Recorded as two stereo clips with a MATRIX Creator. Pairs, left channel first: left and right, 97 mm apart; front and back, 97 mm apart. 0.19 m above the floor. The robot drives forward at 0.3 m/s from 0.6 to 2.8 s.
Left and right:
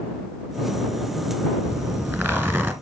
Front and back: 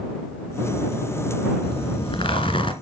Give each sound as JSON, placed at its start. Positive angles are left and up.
{"t": 1.6, "sound": "a zipper", "azimuth_deg": -20, "distance_m": 2.0}